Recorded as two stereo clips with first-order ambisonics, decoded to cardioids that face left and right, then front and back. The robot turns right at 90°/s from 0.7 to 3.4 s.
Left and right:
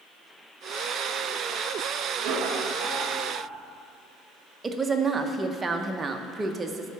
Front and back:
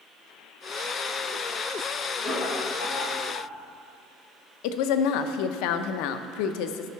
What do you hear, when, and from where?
2.2 s laughter: 90° right, 2 m; by 3.5 s 15° left, 2 m
4.6 s a woman speaking: 15° right, 0.6 m